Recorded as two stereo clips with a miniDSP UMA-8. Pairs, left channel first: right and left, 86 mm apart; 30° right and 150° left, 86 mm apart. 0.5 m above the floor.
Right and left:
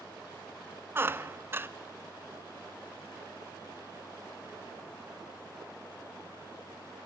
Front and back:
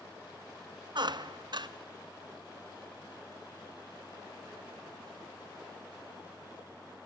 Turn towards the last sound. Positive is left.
turn(degrees=150)